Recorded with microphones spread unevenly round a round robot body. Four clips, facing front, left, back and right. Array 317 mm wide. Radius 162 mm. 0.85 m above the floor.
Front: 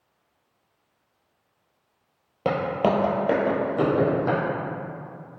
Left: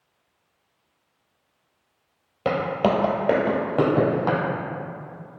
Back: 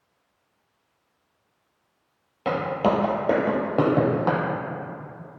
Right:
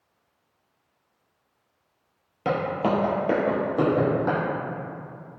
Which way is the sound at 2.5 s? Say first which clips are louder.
Left 2 dB, even; 20° left.